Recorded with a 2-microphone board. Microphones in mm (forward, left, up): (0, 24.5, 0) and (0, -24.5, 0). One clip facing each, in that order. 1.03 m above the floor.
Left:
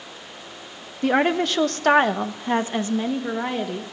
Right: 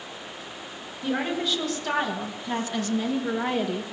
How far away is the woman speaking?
About 1.3 m.